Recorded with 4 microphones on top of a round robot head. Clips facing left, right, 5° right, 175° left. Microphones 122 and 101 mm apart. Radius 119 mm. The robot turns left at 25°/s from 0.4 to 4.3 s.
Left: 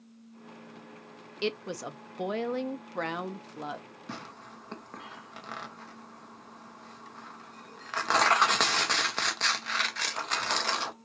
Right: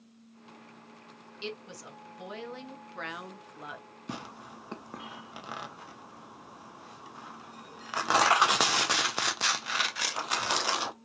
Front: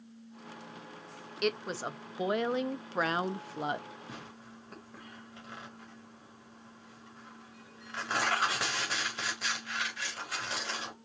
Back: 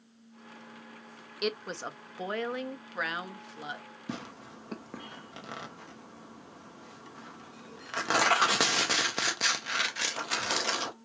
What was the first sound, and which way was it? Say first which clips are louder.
A woman speaking: left 9 dB, front 1 dB; 90° left.